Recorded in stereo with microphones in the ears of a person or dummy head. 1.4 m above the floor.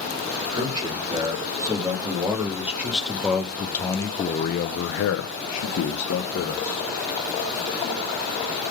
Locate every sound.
0.5 s a man speaking: 20° right (ahead or behind), 3 m; by 6.9 s 55° left (ahead or behind), 1.7 m